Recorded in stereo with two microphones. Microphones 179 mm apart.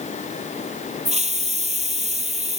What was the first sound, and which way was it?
A hiss, 40° right (ahead or behind).